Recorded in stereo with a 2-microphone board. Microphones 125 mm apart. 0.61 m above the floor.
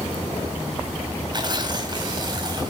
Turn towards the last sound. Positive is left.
turn(degrees=-35)  # may be behind; listen again after turning